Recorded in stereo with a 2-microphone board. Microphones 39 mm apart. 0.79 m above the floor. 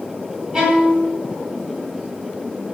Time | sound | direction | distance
0.5 | a violin | 20° right (ahead or behind) | 0.7 m